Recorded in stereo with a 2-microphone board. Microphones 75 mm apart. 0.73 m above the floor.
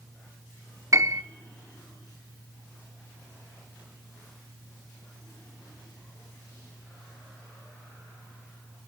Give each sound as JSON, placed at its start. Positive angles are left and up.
{"t": 0.9, "sound": "a piano", "side_deg": -45, "distance_m": 1.0}